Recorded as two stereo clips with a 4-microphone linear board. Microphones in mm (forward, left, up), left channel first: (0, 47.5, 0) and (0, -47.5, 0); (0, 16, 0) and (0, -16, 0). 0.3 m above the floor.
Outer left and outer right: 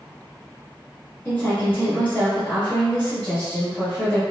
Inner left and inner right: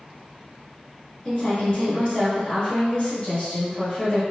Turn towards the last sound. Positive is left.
turn(degrees=20)  # may be behind; listen again after turning